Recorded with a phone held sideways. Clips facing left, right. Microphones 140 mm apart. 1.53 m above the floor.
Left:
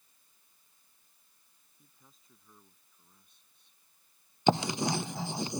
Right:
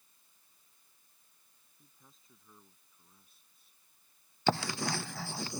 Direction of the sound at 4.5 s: 20° left (ahead or behind).